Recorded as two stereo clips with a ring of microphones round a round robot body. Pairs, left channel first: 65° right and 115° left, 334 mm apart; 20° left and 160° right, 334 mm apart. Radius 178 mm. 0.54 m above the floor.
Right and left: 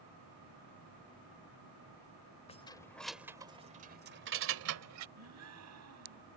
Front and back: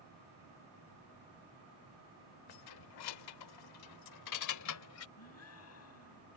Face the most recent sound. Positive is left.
turn(degrees=70)